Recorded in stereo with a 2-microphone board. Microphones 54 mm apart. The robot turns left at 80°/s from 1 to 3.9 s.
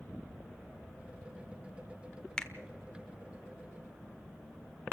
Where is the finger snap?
10° left (ahead or behind), 1.2 m; by 2.5 s centre (ahead or behind), 1.2 m.